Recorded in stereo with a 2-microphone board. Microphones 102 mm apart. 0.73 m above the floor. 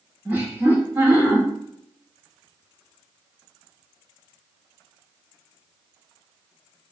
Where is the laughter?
20° right (ahead or behind), 0.9 m.